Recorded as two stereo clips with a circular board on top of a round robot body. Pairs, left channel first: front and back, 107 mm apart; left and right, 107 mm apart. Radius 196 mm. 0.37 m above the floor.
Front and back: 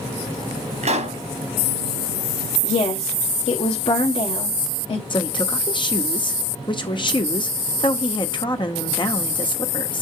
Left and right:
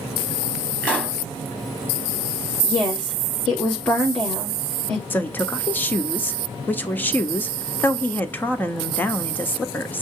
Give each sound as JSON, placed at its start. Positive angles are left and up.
{"t": 0.8, "sound": "a pop", "azimuth_deg": 170, "distance_m": 3.5}
{"t": 2.6, "sound": "a woman speaking", "azimuth_deg": 10, "distance_m": 3.0}
{"t": 5.1, "sound": "a woman speaking", "azimuth_deg": 20, "distance_m": 1.8}